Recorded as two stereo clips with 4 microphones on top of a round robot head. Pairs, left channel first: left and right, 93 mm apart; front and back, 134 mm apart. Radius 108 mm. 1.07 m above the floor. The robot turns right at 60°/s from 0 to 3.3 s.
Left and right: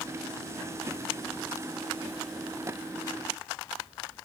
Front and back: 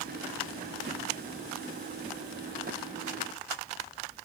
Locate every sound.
Only background noise.